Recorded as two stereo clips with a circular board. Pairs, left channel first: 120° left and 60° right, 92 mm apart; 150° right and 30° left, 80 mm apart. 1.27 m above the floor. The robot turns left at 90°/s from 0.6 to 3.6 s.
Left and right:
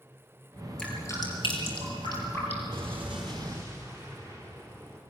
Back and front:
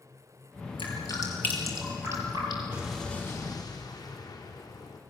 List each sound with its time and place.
0.8 s dripping: 160° right, 6 m; by 2.6 s 40° left, 6 m
2.7 s an explosion: 40° right, 4 m; by 5.0 s 120° right, 4 m